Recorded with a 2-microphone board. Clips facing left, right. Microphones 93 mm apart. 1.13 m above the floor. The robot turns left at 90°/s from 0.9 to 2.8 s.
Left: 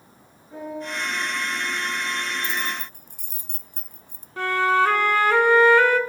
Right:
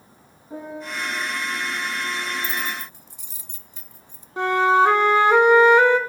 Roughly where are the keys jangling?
Left.